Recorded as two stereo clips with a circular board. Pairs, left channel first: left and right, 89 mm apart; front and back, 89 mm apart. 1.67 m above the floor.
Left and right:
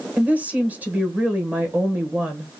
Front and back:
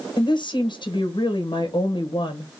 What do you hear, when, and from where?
0.2 s a woman speaking: 20° right, 1.1 m